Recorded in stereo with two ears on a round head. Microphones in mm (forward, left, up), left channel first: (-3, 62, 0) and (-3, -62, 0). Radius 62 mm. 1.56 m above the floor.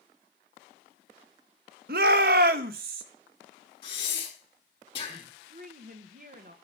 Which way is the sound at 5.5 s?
60° right (ahead or behind).